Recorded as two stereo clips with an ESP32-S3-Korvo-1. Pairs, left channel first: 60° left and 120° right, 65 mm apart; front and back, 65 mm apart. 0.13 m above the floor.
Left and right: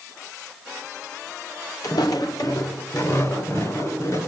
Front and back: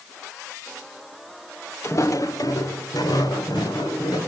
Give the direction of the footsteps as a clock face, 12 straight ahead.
10 o'clock.